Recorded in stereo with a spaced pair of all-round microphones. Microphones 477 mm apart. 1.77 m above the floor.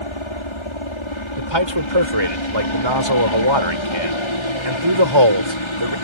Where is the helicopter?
70° left (ahead or behind).